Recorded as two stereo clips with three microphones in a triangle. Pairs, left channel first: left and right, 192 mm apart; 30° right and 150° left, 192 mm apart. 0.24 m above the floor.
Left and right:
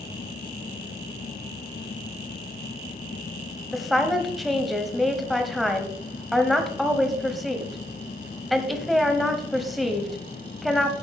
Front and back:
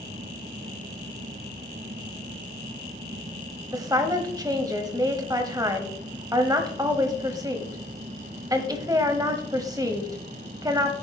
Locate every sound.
3.7 s a woman speaking: straight behind, 1.2 m